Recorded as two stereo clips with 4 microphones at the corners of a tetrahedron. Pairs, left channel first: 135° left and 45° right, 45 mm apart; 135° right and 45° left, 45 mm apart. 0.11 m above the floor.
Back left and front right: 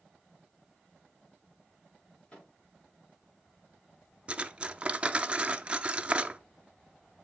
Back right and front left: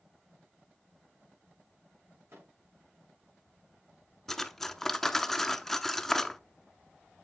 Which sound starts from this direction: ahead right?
Cutlery clinking, at 4.3 s.